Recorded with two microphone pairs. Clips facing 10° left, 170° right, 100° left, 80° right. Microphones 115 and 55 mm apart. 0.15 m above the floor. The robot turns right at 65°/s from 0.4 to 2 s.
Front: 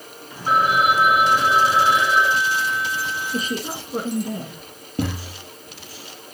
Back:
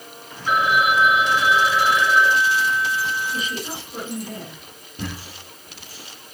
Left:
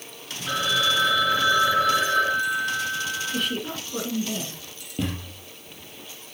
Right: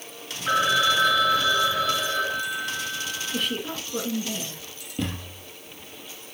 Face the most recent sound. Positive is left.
turn(degrees=15)